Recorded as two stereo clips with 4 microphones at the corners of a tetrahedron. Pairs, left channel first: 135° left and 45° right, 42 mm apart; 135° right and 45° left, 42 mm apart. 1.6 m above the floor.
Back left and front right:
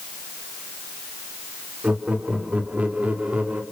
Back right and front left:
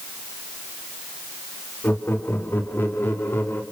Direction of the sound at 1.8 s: 105° right.